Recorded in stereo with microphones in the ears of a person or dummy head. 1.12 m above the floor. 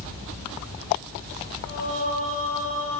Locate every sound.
1.6 s singing: 45° left (ahead or behind), 5.5 m